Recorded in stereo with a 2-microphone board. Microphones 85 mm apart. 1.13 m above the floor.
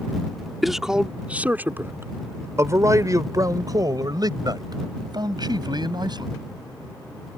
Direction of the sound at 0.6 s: Centre (ahead or behind).